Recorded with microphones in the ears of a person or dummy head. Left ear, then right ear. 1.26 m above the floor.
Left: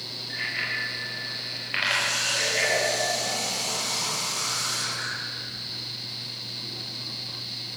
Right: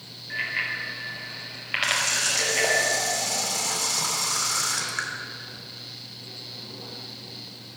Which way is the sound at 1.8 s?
50° right (ahead or behind).